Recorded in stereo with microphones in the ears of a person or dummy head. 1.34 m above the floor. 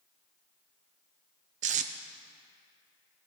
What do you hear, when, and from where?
1.6 s tape being pulled: 35° right (ahead or behind), 0.6 m